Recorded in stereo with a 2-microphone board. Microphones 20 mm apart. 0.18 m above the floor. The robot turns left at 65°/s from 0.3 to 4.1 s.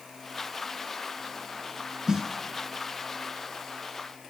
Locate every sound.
2.1 s a snare drum: 35° right (ahead or behind), 0.8 m; by 2.3 s 20° right (ahead or behind), 0.8 m